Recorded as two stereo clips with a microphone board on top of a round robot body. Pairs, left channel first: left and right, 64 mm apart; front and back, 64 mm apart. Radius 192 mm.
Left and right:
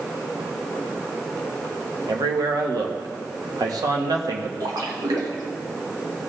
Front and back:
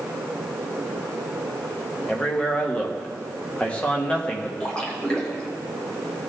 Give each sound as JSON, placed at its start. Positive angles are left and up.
{"t": 2.1, "sound": "a man speaking", "azimuth_deg": -75, "distance_m": 1.5}
{"t": 4.6, "sound": "a splash", "azimuth_deg": -80, "distance_m": 1.9}